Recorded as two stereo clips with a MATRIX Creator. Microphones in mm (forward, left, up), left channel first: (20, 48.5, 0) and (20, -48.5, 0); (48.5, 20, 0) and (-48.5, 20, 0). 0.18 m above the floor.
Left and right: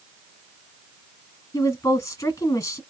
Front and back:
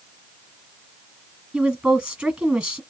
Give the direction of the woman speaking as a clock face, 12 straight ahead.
8 o'clock.